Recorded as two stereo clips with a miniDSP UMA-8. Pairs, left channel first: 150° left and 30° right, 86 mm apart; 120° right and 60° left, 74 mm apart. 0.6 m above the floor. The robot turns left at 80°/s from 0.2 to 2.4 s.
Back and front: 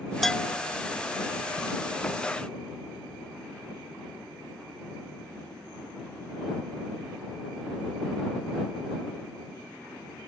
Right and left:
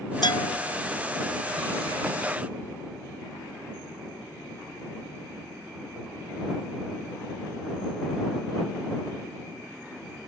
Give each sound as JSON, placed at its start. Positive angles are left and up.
{"t": 0.2, "sound": "a bell", "azimuth_deg": -120}